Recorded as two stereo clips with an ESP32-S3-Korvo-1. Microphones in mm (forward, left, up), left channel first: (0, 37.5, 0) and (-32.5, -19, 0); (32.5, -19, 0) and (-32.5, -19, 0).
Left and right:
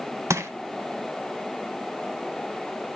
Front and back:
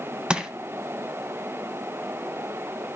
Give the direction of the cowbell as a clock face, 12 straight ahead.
I don't hear a cowbell.